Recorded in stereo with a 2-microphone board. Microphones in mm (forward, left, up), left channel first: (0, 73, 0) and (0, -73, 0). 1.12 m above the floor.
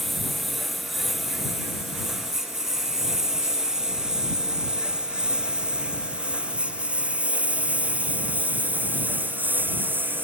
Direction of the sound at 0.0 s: Centre (ahead or behind).